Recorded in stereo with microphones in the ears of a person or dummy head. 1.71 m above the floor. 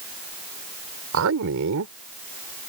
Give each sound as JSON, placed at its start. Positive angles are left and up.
{"t": 1.1, "sound": "a man speaking", "side_deg": -75}